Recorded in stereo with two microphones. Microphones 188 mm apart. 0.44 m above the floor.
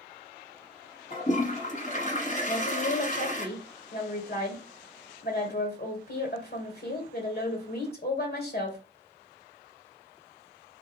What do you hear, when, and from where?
1.1 s a toilet flushing: 45° left (ahead or behind), 1.1 m
2.5 s a woman speaking: 55° left (ahead or behind), 2 m